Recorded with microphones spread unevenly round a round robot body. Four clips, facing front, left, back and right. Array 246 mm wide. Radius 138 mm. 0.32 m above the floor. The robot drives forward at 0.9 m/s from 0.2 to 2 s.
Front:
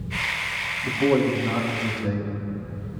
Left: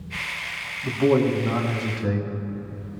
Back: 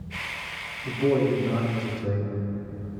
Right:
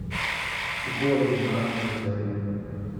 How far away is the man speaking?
About 3 m.